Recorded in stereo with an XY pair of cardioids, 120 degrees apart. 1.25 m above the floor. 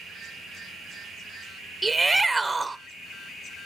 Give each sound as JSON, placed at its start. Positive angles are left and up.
{"t": 1.8, "sound": "a shout", "azimuth_deg": -10, "distance_m": 0.6}